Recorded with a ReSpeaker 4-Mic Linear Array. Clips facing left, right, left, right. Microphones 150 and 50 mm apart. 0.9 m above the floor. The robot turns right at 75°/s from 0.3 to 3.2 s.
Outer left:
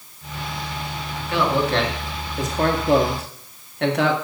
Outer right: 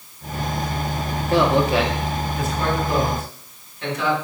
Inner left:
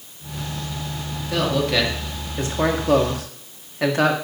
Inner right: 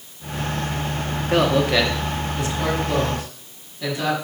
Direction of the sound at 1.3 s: 40° right (ahead or behind).